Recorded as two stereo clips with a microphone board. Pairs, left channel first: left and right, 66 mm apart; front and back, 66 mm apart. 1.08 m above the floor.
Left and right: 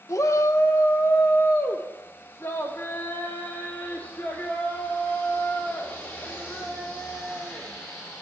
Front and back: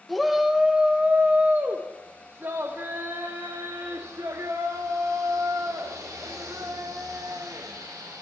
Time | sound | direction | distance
0.1 | a shout | 85° left | 1.2 m